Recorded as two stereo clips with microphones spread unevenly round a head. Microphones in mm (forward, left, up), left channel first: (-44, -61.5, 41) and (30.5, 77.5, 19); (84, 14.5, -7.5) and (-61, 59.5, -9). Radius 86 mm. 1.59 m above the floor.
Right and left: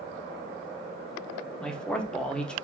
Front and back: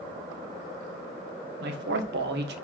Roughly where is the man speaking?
Behind.